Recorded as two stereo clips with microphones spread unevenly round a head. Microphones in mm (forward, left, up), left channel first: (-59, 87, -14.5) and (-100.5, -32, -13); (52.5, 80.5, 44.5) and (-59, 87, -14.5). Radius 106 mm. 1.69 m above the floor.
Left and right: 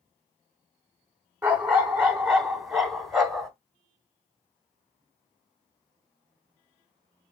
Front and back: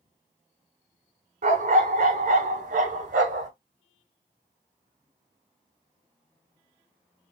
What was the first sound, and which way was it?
A dog barking, 170° right.